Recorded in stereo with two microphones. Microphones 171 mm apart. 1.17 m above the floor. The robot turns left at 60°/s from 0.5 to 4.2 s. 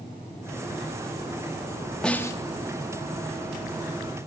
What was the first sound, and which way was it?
A snare drum, 5° left (ahead or behind).